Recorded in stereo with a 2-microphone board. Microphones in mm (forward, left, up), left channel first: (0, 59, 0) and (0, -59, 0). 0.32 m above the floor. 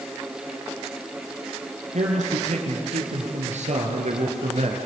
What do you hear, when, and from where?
1.9 s a man speaking: 80° right, 6.5 m; by 4.8 s 65° right (ahead or behind), 4 m